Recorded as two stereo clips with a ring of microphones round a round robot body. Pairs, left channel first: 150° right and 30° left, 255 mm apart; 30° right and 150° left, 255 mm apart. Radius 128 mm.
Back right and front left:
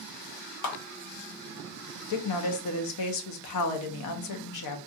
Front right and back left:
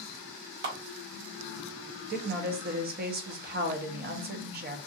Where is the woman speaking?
155° right, 0.9 m.